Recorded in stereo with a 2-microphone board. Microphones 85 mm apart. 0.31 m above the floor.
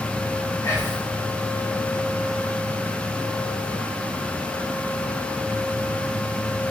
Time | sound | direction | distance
0.6 | whispering | 35° left (ahead or behind) | 1.4 m